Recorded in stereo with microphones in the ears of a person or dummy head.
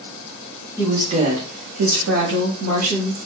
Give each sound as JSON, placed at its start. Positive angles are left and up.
{"t": 0.8, "sound": "a woman speaking", "side_deg": -15, "distance_m": 0.9}